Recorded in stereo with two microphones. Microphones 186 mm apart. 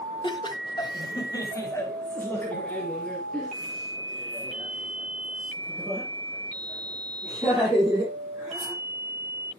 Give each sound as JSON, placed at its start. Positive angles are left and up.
{"t": 0.2, "sound": "laughter", "side_deg": 25, "distance_m": 1.5}